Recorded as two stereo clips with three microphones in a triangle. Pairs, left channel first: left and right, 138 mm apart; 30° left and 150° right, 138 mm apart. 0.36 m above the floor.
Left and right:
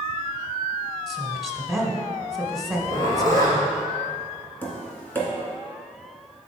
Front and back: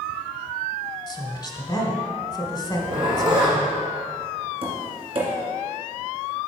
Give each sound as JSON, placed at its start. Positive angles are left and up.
{"t": 1.1, "sound": "a woman speaking", "azimuth_deg": 0, "distance_m": 1.2}
{"t": 2.7, "sound": "a zipper", "azimuth_deg": 155, "distance_m": 2.5}
{"t": 4.6, "sound": "tapping", "azimuth_deg": 165, "distance_m": 2.0}